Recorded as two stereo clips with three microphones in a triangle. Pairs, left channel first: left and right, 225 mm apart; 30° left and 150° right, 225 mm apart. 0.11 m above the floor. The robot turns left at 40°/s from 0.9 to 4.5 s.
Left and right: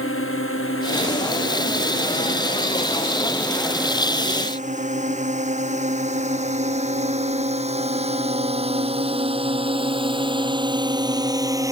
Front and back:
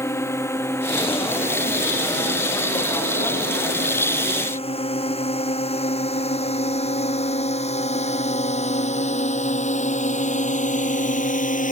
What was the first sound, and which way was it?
A drone, 110° left.